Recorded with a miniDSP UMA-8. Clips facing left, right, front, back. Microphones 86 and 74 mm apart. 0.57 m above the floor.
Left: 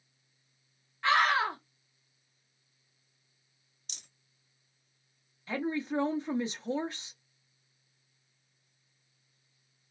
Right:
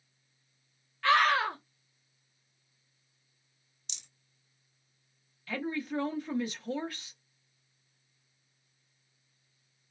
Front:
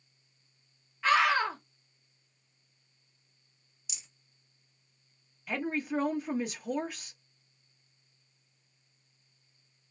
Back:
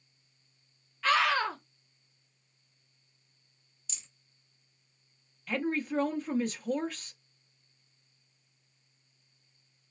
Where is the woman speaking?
65° left, 0.6 m.